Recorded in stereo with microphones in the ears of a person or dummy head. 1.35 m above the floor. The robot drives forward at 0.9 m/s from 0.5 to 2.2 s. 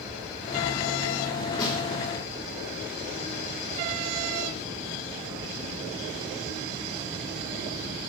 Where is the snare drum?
25° left (ahead or behind), 4 m.